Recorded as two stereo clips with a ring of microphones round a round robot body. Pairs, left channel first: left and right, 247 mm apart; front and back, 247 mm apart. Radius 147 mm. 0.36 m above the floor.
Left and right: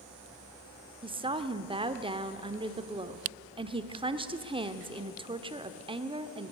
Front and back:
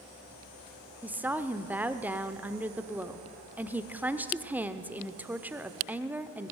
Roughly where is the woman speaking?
Right.